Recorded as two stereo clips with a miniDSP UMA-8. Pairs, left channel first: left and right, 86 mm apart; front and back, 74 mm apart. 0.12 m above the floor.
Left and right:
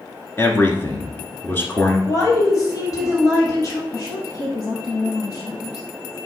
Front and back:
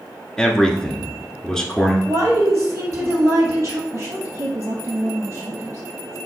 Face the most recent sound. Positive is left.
turn(degrees=135)